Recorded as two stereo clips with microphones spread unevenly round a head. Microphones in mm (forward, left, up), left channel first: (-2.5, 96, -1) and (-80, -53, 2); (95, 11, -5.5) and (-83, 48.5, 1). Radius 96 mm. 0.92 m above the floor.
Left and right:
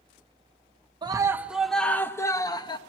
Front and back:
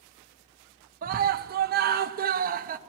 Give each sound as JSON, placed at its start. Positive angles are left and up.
{"t": 1.0, "sound": "a scream", "azimuth_deg": -170, "distance_m": 0.8}